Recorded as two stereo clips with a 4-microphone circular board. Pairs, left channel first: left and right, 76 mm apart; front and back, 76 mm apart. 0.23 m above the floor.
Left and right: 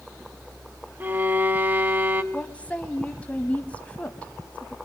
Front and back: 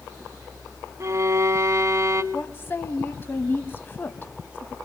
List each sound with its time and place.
1.0 s a violin: 150° right, 1.0 m
2.3 s a woman speaking: 35° left, 1.1 m